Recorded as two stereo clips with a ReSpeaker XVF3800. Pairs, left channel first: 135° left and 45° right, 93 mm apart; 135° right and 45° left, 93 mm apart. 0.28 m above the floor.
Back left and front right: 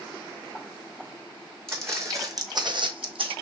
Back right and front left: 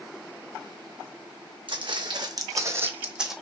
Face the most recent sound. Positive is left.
turn(degrees=-40)